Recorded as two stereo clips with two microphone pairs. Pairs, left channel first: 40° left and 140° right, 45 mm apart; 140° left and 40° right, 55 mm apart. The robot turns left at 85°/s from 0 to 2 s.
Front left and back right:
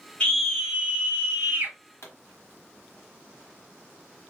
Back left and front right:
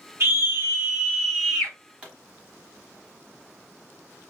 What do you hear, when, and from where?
0.2 s a scream: 25° right, 1.6 m; by 1.8 s 155° right, 1.6 m
2.0 s a pop: 30° left, 1.2 m